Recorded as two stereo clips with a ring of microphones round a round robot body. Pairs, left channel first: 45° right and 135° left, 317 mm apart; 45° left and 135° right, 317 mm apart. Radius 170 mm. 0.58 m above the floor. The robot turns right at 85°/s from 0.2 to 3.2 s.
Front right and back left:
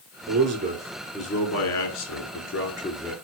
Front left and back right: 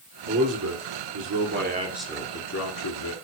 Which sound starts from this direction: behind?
A man speaking, at 0.3 s.